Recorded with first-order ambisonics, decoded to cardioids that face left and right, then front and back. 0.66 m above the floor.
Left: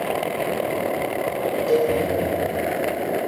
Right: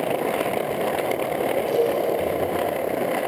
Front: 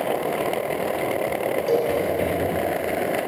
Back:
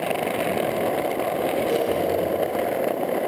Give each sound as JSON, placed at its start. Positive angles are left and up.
{"t": 1.7, "sound": "a cowbell", "azimuth_deg": 20, "distance_m": 6.0}